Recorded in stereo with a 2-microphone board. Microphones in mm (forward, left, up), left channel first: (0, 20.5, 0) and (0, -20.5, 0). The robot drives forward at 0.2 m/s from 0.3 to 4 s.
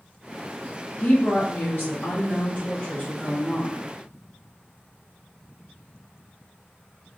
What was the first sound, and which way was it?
A woman speaking, 45° left (ahead or behind).